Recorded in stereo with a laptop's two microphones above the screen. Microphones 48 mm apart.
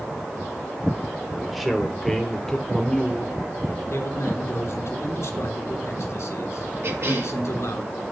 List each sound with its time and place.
1.3 s a man speaking: 5° right (ahead or behind), 3 m; by 3.8 s 30° left (ahead or behind), 2.5 m
3.9 s a man speaking: 75° left (ahead or behind), 3 m
6.8 s a cough: 65° right (ahead or behind), 2 m